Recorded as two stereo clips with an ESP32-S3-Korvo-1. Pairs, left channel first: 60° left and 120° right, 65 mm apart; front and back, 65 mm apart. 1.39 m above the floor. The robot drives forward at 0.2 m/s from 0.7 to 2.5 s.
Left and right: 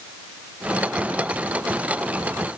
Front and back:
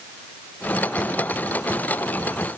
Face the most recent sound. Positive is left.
No sound to turn to.